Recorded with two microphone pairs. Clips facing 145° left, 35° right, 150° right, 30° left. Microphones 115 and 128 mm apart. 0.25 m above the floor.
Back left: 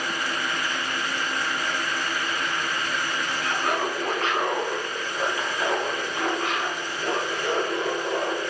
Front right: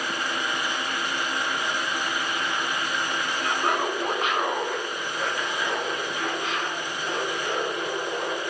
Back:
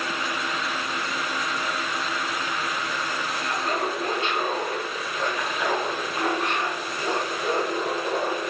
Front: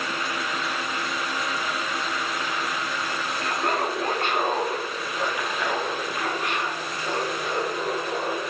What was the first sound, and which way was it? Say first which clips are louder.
Laughter: front right 1 dB, front 2 dB; 20° left.